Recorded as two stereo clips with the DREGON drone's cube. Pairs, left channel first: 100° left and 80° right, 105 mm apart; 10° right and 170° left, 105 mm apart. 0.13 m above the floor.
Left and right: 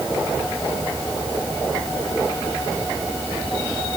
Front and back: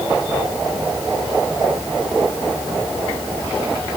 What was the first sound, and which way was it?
Only background noise.